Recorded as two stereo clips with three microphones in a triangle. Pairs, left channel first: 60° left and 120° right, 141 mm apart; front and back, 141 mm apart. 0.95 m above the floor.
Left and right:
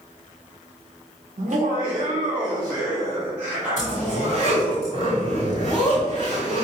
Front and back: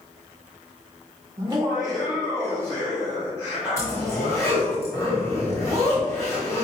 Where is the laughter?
130° right, 0.7 m; by 4.8 s 35° right, 2 m.